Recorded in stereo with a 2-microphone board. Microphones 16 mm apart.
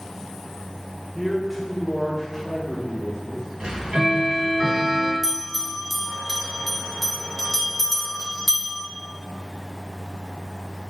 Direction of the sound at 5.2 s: 5° right (ahead or behind).